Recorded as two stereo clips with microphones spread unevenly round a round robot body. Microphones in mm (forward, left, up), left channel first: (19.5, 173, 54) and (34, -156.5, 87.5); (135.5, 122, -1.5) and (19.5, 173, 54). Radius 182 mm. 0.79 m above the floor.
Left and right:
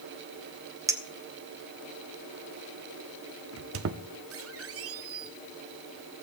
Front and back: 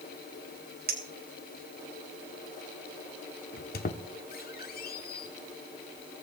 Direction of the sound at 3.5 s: 40° right.